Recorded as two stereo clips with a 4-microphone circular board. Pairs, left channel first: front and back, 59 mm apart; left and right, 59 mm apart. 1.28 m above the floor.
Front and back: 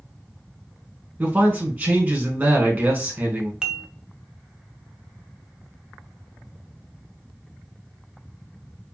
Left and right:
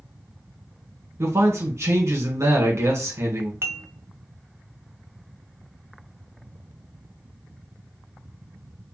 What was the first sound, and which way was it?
A man speaking, 115° right.